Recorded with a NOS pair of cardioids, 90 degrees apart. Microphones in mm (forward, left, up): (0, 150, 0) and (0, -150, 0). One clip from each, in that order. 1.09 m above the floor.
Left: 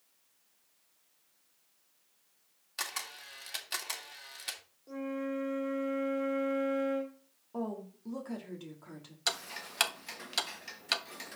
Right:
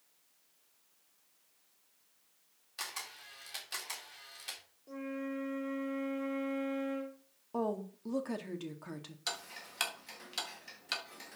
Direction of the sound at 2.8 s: 35° left.